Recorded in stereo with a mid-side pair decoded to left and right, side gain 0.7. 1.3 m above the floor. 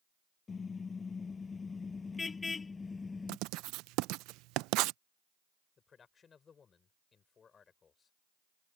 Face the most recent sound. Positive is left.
turn(degrees=30)